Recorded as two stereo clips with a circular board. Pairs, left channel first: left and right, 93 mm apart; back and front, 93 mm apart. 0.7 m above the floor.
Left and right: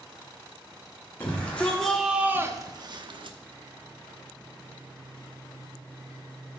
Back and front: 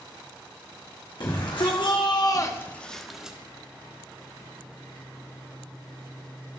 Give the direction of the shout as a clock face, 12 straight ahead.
7 o'clock.